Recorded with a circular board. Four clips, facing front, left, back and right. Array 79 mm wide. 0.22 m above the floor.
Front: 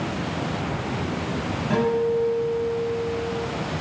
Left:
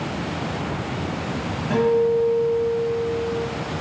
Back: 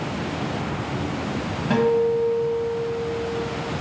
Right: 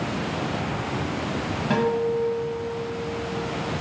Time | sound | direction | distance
1.7 | a guitar | 130° right | 1.5 m